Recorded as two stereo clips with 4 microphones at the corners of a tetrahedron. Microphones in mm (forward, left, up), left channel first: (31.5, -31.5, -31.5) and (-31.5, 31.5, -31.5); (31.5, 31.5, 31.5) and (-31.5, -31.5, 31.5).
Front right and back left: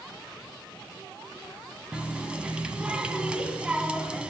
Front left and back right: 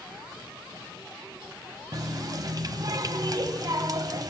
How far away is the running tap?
About 0.9 m.